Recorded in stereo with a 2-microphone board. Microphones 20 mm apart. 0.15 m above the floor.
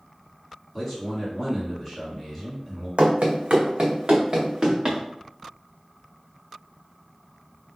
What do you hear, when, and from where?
0.7 s a man speaking: 5° right (ahead or behind), 1.7 m
3.0 s running footsteps: 80° right, 0.7 m; by 5.0 s 30° right (ahead or behind), 1.4 m